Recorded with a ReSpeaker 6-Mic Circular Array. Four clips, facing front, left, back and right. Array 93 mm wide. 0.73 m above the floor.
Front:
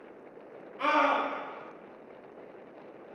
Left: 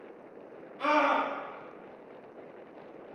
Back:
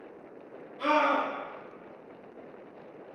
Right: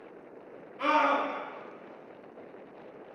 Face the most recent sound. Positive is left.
turn(degrees=-35)